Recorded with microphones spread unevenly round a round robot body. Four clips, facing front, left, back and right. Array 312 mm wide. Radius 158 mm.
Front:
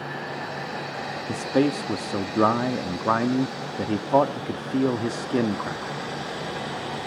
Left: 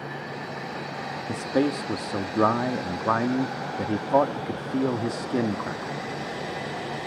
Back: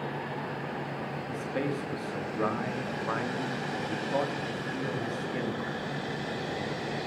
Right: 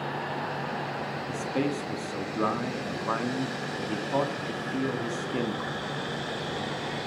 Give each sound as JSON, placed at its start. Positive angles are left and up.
{"t": 1.3, "sound": "a man speaking", "azimuth_deg": 35, "distance_m": 1.7}